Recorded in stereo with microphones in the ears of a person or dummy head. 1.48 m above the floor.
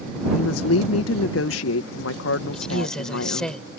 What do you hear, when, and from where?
0.3 s a woman speaking: 80° left
2.5 s a woman speaking: centre (ahead or behind)